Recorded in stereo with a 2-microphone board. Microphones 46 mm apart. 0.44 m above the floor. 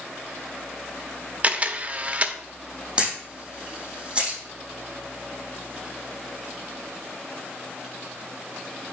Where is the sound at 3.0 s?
20° right (ahead or behind), 5 m.